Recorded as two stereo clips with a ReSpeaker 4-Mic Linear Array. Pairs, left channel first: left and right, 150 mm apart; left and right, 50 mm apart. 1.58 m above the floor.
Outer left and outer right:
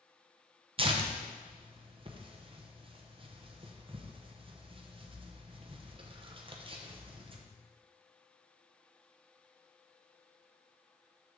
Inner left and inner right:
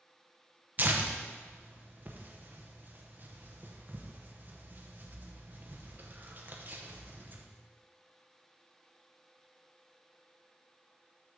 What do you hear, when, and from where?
0.8 s tearing paper: 35° right (ahead or behind), 0.8 m